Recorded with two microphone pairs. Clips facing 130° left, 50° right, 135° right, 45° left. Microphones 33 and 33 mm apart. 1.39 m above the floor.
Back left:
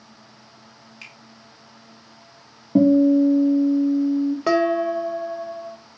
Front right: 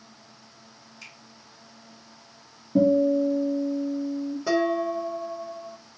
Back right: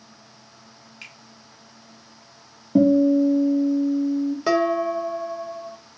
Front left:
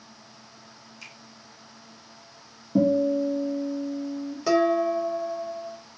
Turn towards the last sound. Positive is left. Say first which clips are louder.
# back left 3 dB, front left 1 dB
turn(degrees=155)